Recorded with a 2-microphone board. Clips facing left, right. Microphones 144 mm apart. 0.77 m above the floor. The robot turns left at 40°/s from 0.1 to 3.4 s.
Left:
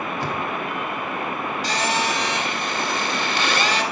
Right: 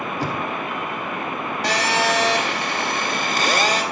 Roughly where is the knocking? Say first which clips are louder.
Right 2 dB; right.